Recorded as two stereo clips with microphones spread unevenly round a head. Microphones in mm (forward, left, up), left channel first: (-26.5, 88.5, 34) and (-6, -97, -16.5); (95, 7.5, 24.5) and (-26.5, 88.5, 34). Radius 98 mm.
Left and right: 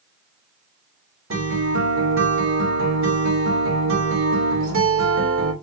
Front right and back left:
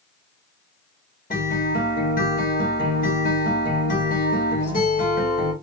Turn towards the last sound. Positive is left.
turn(degrees=-80)